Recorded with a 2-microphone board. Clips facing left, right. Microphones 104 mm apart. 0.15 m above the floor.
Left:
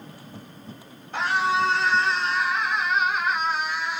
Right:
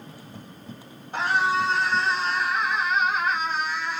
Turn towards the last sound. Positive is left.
turn(degrees=0)  # may be behind; listen again after turning